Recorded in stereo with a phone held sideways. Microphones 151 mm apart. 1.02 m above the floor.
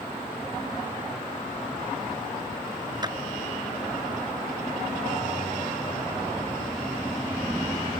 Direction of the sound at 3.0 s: 30° right (ahead or behind).